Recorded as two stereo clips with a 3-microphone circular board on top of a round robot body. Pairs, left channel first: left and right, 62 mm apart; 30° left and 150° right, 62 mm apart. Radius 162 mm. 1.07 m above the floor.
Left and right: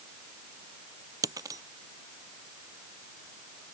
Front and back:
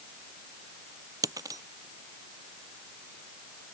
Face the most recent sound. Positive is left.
turn(degrees=-120)